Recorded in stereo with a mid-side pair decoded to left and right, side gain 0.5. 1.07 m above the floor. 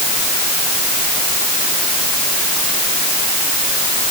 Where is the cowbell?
I don't hear a cowbell.